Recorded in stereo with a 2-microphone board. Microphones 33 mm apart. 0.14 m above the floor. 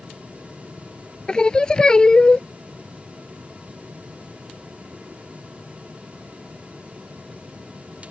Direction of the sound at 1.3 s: 25° left (ahead or behind).